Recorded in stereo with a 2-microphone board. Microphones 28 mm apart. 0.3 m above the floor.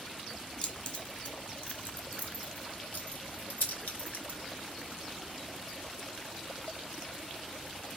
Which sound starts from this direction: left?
Keys jangling, at 0.6 s.